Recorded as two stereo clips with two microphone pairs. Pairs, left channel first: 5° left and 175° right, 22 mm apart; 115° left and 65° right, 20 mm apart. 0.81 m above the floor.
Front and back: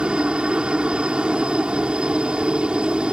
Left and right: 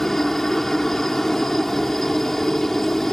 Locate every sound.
0.0 s a helicopter: 175° right